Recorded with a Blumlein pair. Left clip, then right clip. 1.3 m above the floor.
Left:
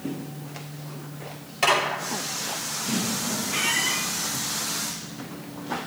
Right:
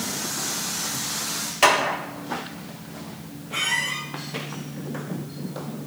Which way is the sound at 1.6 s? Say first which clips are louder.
Right 3 dB; 65° right.